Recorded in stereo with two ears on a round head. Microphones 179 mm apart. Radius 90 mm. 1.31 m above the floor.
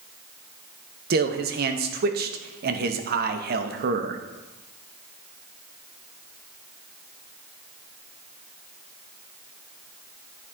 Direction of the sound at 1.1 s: 50° right (ahead or behind).